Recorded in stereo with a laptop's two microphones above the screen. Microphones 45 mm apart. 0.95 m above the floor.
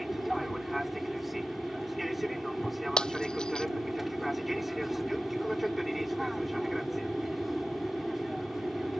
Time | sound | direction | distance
0.0 | an aircraft | centre (ahead or behind) | ?
3.0 | breaking glass | 20° left (ahead or behind) | ?